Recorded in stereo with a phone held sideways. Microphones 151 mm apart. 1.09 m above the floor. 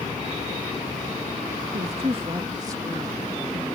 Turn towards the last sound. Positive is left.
turn(degrees=0)  # may be behind; listen again after turning